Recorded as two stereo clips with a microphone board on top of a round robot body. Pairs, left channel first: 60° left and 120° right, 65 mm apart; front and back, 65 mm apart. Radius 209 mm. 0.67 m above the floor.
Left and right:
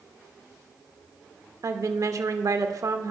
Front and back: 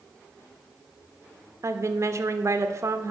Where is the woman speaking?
140° right, 1.2 m.